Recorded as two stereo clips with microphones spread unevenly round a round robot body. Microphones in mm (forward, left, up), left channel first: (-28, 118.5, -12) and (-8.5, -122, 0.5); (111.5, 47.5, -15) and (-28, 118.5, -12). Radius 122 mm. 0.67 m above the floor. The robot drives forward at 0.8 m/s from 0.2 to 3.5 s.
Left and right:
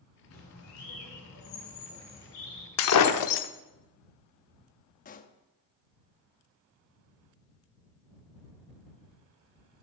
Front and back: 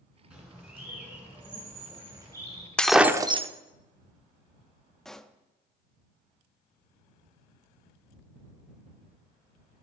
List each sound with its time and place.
0.3 s a bird: 65° left, 5.5 m; by 2.7 s 85° left, 5.5 m
2.8 s breaking glass: 55° left, 0.8 m; by 3.5 s 100° left, 0.7 m
5.0 s a pop: 60° left, 0.6 m